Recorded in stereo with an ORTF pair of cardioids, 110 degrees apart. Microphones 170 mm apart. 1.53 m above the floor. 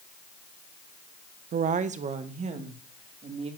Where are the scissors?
I don't hear scissors.